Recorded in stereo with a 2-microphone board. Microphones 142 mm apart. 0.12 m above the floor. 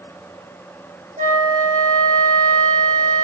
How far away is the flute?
About 5.5 m.